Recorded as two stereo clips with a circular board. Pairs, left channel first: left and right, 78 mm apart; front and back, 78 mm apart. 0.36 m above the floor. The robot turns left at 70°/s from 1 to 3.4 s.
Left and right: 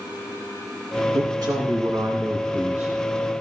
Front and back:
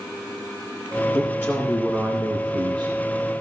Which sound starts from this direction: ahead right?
A woman speaking, at 1.1 s.